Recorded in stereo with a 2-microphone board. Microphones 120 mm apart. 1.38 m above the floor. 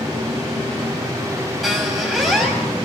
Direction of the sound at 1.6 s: Centre (ahead or behind).